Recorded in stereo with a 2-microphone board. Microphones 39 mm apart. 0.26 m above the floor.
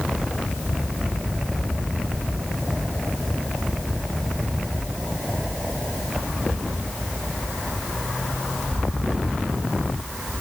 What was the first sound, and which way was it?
Only background noise.